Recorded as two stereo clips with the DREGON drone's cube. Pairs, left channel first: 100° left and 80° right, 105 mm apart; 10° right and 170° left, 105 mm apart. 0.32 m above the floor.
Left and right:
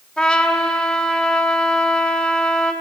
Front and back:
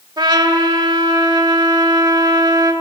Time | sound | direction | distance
0.2 | a trumpet | 175° left | 1.6 m